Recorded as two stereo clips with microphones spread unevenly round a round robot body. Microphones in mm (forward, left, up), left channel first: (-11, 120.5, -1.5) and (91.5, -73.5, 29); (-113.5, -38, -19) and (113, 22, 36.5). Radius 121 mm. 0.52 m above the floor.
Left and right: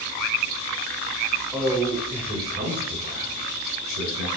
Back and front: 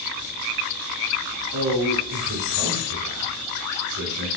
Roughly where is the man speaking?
Ahead left.